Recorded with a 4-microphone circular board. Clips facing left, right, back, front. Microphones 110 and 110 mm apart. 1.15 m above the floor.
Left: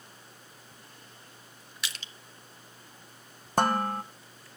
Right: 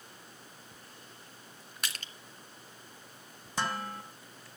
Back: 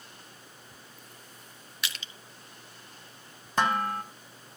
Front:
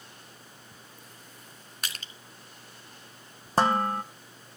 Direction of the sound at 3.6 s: 55° left.